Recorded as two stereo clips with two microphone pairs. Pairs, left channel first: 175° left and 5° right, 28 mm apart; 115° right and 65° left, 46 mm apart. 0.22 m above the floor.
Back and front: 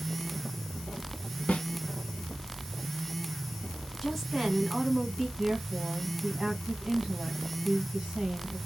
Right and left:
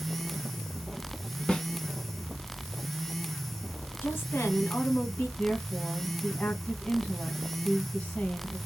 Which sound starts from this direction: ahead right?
A woman speaking, at 5.4 s.